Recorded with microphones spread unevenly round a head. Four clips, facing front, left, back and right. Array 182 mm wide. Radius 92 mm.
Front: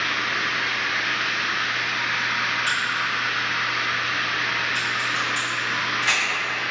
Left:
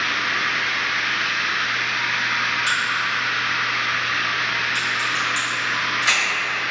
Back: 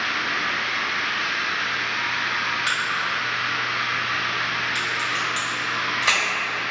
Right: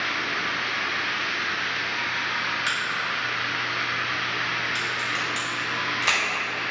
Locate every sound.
0.0 s running water: 55° left, 0.9 m
2.7 s a crack: 170° right, 1.0 m